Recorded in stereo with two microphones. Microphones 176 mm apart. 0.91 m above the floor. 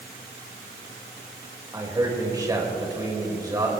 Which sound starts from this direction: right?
A man speaking, at 1.7 s.